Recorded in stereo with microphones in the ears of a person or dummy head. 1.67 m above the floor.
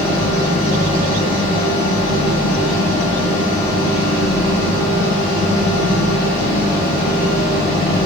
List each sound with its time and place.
0.0 s a fan: 45° left (ahead or behind), 1.6 m